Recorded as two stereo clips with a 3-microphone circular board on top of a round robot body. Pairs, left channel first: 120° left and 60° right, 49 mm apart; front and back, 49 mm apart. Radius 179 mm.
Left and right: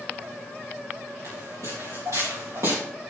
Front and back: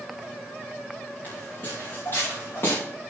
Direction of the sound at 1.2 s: 55° right.